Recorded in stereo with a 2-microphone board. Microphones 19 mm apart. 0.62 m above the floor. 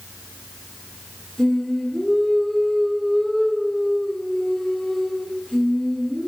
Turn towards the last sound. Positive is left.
turn(degrees=10)  # may be behind; listen again after turning